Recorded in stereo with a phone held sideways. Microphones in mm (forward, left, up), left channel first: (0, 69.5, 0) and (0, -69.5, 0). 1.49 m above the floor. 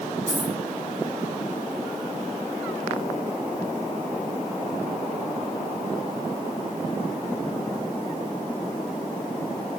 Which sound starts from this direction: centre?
A dropped coin, at 0.3 s.